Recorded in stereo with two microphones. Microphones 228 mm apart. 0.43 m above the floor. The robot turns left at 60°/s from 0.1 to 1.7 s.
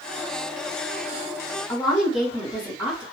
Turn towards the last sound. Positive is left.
turn(degrees=30)  # may be behind; listen again after turning